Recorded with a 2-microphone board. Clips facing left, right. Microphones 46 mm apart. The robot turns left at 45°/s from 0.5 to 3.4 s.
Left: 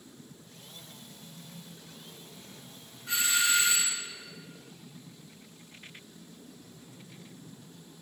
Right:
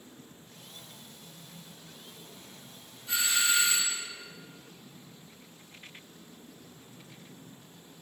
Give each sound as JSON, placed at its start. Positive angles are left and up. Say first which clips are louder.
{"t": 3.1, "sound": "a doorbell", "louder": "left 1 dB", "side_deg": 75, "distance_m": 4.0}